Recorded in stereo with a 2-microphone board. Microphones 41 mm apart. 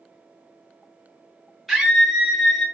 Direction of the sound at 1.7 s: Centre (ahead or behind).